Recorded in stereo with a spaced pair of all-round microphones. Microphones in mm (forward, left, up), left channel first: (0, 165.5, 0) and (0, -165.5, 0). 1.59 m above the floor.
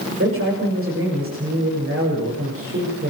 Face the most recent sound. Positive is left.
turn(degrees=-40)  # may be behind; listen again after turning